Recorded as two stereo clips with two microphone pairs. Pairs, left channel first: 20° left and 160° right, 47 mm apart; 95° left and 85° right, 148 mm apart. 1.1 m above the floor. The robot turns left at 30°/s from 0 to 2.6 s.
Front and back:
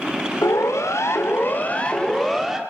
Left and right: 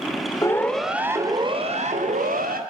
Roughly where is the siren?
Ahead left.